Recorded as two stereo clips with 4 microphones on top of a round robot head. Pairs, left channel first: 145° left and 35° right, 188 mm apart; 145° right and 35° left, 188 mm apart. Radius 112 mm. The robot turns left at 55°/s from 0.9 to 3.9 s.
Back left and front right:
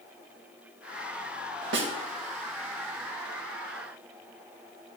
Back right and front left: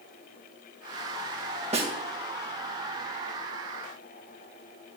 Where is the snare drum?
20° right, 2 m; by 1.9 s 30° right, 2 m.